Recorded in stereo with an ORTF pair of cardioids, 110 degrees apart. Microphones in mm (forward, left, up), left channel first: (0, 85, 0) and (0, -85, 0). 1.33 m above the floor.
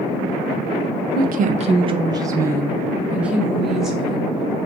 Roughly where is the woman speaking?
Ahead right.